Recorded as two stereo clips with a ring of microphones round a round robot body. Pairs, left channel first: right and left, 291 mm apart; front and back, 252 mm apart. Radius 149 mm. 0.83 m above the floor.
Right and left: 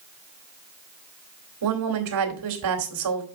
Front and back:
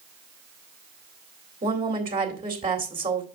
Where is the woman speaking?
115° left, 2 m.